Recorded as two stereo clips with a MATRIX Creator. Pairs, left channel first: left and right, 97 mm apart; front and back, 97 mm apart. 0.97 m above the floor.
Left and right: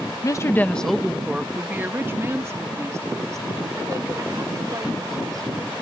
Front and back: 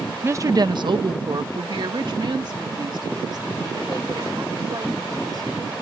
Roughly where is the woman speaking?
Behind left.